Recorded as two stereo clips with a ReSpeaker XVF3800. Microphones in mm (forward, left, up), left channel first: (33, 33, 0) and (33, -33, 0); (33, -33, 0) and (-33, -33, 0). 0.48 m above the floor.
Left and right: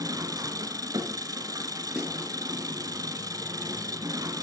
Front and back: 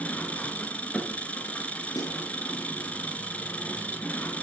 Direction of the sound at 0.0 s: 70° right.